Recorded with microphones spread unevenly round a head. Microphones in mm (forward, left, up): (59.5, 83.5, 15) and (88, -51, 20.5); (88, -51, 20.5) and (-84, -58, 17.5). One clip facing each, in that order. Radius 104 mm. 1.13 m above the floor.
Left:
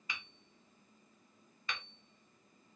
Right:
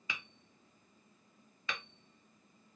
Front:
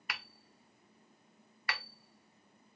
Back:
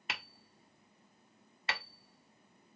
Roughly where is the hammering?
Right.